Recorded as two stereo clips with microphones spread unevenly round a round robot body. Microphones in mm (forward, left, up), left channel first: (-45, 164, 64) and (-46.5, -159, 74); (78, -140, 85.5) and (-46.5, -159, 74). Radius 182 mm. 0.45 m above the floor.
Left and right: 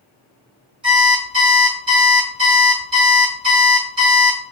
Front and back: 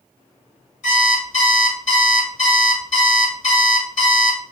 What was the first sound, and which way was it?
An alarm clock, 15° right.